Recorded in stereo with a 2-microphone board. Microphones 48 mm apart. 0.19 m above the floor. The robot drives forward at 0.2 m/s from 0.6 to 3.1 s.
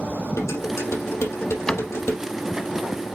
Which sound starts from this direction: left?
Dishes clattering, at 0.4 s.